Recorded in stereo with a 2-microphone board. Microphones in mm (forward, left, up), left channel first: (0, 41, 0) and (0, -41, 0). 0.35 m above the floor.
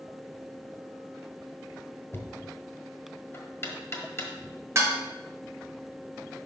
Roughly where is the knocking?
Left.